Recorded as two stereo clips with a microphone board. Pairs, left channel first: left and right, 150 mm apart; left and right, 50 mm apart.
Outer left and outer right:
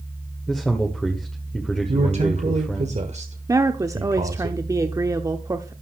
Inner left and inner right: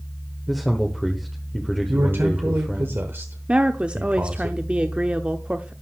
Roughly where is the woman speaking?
Right.